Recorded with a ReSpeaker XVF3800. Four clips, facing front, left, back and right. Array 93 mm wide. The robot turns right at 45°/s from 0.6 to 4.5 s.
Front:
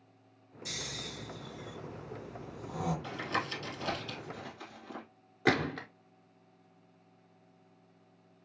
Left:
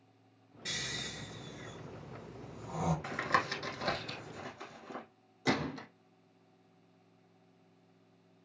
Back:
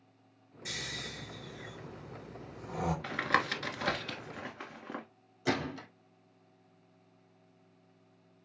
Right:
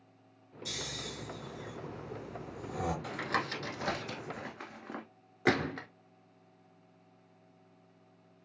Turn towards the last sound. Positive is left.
turn(degrees=-45)